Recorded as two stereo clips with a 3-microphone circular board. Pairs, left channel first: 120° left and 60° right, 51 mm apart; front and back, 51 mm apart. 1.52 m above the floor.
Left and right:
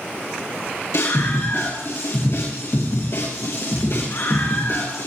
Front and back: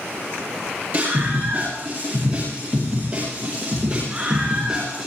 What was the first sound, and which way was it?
A scream, 125° left.